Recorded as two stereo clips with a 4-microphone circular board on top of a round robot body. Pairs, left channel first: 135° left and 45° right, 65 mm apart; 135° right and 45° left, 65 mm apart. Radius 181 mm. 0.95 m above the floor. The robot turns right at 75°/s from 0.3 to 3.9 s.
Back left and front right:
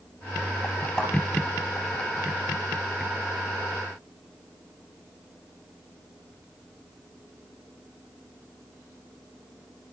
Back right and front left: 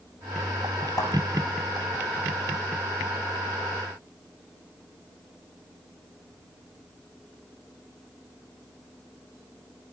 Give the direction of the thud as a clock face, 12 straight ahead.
5 o'clock.